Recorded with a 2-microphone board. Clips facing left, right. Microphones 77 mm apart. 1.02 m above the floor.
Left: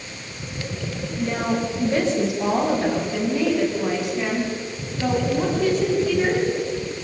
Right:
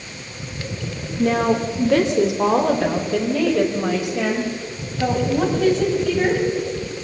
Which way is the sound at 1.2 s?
70° right (ahead or behind).